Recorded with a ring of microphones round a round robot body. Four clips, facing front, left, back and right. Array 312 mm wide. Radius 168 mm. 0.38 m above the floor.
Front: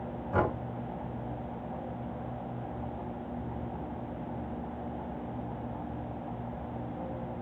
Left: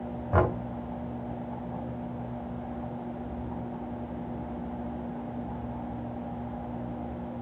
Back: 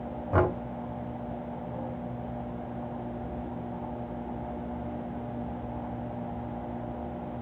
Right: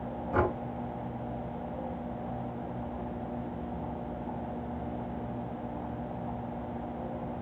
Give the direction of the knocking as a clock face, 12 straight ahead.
8 o'clock.